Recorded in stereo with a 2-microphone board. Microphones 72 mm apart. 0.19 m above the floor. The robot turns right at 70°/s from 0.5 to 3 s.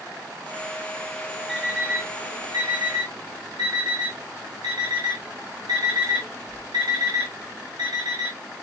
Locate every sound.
1.5 s an alarm clock: 5° right (ahead or behind), 8 m; by 8.4 s 70° right (ahead or behind), 8 m